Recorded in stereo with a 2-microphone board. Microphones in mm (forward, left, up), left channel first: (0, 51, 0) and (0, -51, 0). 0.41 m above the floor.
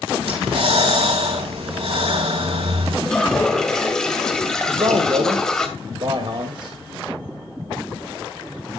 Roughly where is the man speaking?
Right.